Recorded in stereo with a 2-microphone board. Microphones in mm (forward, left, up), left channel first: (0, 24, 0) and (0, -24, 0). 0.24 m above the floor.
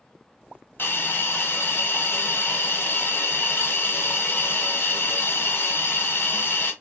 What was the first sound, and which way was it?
A hiss, 45° left (ahead or behind).